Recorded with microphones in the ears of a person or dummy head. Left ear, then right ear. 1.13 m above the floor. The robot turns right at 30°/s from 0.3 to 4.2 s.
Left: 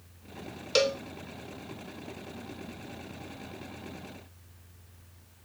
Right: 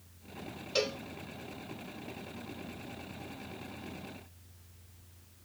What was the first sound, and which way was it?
A cowbell, 50° left (ahead or behind).